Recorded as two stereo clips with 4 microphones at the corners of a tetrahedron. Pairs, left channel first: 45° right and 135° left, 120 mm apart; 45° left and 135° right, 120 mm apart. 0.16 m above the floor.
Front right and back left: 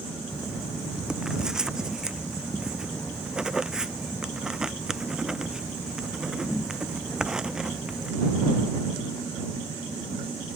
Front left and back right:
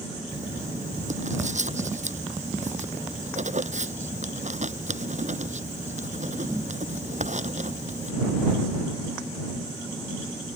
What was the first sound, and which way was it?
Writing, 140° right.